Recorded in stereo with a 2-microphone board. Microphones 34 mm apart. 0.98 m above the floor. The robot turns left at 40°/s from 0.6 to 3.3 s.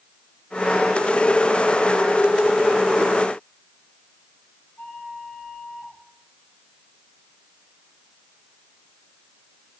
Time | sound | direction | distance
4.8 | a flute | 80° left | 9 m